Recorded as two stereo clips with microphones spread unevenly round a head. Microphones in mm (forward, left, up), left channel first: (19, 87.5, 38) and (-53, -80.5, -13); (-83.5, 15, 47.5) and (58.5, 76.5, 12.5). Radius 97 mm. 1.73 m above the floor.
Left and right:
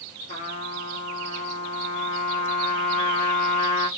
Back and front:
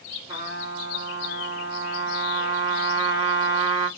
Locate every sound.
0.3 s a trumpet: 95° left, 1.3 m